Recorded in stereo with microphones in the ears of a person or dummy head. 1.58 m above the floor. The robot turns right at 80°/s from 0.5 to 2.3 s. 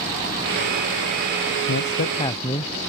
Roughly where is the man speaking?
Left.